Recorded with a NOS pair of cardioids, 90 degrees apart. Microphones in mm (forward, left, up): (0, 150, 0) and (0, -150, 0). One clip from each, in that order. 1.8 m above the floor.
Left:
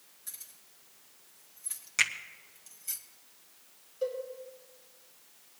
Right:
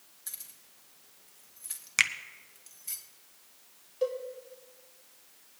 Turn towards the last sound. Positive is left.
turn(degrees=-50)